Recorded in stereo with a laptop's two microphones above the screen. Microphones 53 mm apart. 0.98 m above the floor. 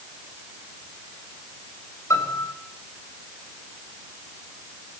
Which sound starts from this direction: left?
A piano, at 2.1 s.